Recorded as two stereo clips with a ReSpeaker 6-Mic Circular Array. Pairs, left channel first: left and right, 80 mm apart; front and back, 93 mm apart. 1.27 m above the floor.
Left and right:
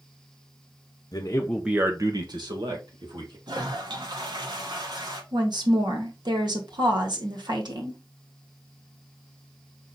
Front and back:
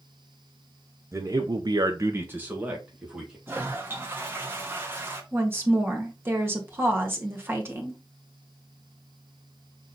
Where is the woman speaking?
115° right, 2 m.